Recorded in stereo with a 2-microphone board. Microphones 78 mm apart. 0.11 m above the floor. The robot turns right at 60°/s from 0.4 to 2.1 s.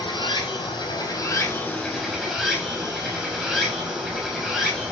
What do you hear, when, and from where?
0.0 s running water: 80° left, 7 m; by 4.9 s 175° right, 7 m